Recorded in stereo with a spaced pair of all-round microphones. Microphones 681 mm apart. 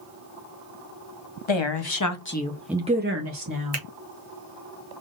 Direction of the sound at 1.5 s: 45° left (ahead or behind).